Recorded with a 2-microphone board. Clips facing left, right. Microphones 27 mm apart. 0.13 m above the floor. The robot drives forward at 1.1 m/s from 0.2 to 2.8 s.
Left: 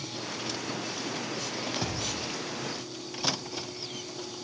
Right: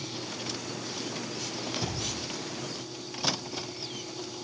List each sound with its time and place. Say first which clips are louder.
1.8 s a thud: left 1 dB; 60° left (ahead or behind), 6.5 m